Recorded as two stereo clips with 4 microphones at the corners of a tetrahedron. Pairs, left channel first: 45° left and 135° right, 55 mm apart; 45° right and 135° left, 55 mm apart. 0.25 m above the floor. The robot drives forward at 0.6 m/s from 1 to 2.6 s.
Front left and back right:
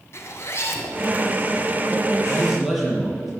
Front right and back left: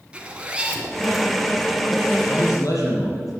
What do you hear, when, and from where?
0.1 s a zipper: 65° left, 1.9 m; by 1.2 s 70° left, 1.8 m
2.3 s a man speaking: 50° right, 6 m